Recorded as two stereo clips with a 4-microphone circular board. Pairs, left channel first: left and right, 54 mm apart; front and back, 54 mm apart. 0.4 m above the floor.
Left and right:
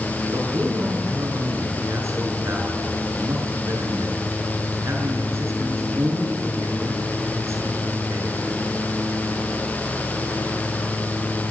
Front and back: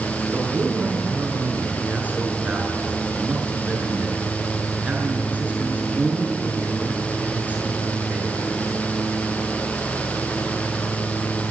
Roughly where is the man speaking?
Behind right.